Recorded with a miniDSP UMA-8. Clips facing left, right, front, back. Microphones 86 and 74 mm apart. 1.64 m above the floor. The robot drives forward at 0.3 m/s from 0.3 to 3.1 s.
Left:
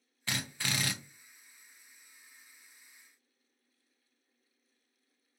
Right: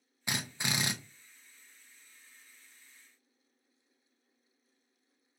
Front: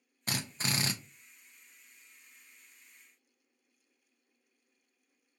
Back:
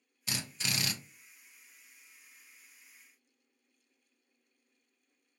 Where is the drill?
20° right, 0.6 m; by 0.9 s 35° right, 0.5 m.